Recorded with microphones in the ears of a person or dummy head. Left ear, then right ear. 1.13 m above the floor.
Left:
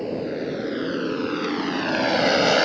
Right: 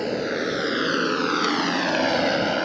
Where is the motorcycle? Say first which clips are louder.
Right 2 dB; 60° right (ahead or behind); by 2.7 s 40° left (ahead or behind).